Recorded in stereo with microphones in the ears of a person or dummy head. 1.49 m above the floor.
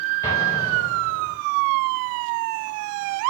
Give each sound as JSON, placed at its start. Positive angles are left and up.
{"t": 0.2, "sound": "an explosion", "side_deg": 20, "distance_m": 5.0}